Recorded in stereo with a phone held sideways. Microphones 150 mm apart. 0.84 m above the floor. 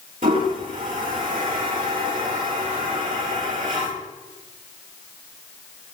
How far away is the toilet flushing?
About 4.5 m.